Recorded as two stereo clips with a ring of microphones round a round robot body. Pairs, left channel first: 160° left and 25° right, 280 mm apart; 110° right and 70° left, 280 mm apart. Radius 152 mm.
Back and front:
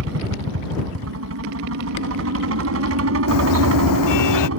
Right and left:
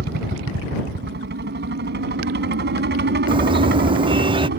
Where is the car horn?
140° left.